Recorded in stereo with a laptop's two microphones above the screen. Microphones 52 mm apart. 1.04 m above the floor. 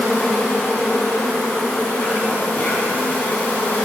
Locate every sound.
0.0 s an insect: 35° left (ahead or behind), 2 m